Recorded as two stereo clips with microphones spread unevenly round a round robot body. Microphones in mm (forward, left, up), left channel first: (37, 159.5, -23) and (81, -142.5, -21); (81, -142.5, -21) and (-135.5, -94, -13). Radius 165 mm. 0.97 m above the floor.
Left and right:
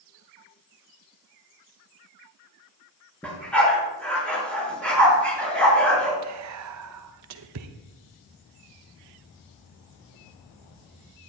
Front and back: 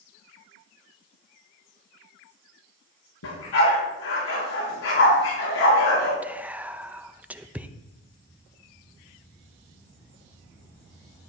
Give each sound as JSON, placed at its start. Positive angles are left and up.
{"t": 3.2, "sound": "a dog barking", "azimuth_deg": 15, "distance_m": 6.5}
{"t": 6.2, "sound": "whispering", "azimuth_deg": -110, "distance_m": 0.8}